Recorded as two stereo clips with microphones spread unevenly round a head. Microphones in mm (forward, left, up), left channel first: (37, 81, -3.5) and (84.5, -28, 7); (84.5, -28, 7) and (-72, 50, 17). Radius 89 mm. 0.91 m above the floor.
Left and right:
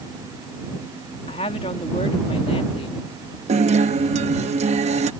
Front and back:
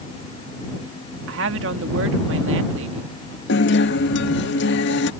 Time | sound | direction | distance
1.3 | a woman speaking | 165° left | ?
3.5 | a guitar | 40° right | ?